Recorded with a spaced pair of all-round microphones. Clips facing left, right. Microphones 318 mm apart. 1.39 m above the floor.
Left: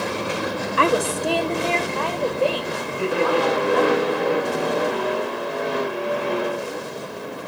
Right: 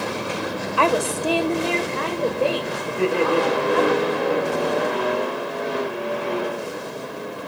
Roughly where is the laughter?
Right.